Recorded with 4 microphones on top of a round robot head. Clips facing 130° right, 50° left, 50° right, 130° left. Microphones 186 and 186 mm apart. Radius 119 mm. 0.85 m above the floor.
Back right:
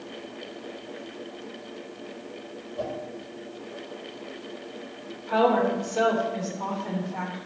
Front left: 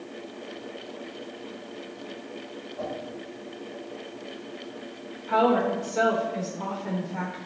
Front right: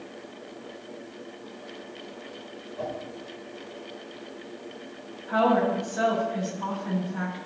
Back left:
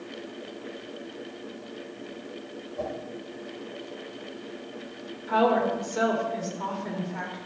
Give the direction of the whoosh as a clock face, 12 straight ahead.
6 o'clock.